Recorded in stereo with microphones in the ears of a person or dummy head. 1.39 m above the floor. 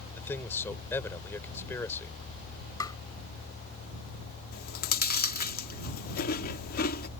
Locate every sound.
0.2 s a man speaking: 15° left (ahead or behind)
2.8 s tapping: 20° left (ahead or behind)
4.5 s chewing: 50° left (ahead or behind)